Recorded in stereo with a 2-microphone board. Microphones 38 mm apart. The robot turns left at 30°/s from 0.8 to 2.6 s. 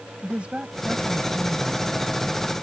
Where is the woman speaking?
50° right; by 2.4 s 100° right.